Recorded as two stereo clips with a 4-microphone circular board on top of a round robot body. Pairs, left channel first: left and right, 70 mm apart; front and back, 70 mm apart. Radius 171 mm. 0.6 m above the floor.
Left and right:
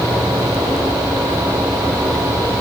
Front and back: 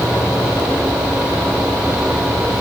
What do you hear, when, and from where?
Only background noise.